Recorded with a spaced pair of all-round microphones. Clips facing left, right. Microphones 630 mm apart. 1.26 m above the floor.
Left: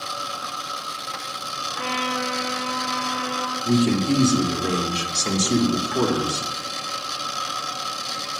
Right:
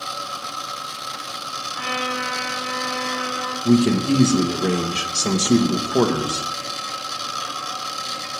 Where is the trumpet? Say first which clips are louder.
Left 1 dB; 85° right, 4 m.